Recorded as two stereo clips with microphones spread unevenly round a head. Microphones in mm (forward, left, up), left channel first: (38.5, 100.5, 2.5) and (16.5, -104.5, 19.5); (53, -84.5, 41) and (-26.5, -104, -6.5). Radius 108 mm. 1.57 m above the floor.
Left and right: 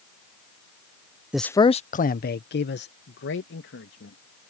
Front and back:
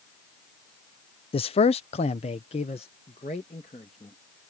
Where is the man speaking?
10° right; by 4.2 s 55° left.